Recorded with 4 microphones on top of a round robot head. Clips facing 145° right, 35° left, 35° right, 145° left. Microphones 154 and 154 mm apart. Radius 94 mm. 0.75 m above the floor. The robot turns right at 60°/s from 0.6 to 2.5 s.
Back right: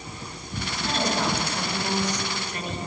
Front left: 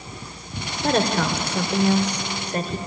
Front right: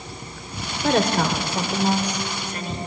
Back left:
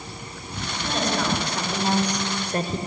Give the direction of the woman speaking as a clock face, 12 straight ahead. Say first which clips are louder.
Front left 5 dB, front right 5 dB; 12 o'clock.